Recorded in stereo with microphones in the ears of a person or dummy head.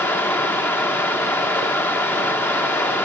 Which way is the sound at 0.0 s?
10° left (ahead or behind).